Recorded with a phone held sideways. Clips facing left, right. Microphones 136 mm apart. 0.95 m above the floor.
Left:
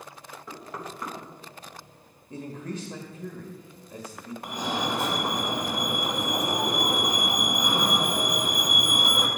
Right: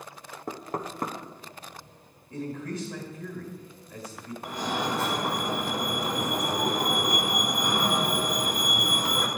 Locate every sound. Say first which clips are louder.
0.5 s knocking: right 5 dB; 45° right (ahead or behind), 1.0 m
2.3 s a man speaking: right 2 dB; 25° left (ahead or behind), 1.5 m
4.4 s a fire alarm: even; 15° left (ahead or behind), 2.5 m